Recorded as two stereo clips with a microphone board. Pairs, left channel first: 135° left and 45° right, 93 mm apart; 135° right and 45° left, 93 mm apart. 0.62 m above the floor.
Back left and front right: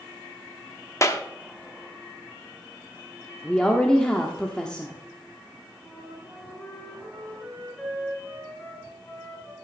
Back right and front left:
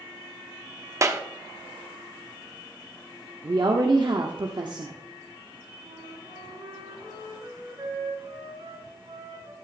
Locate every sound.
1.0 s a clap: 90° left, 0.8 m
3.4 s a woman speaking: 55° left, 1.0 m
5.8 s a flute: 60° left, 4 m